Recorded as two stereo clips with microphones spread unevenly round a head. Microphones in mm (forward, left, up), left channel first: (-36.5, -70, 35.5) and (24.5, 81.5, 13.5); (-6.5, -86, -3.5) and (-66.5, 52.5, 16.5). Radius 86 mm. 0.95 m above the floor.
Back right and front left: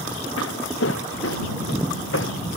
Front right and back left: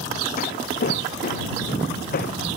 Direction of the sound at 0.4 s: 95° right.